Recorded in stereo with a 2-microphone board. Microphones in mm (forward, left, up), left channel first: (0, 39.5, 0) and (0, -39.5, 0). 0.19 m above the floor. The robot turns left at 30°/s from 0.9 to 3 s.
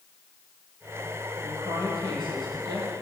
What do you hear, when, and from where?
1.4 s a woman speaking: 60° right, 6 m; by 2.9 s 105° right, 6 m